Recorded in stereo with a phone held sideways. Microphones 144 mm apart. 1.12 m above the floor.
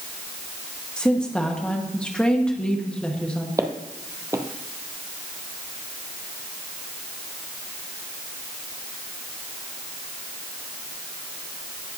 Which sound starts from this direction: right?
Footsteps, at 3.6 s.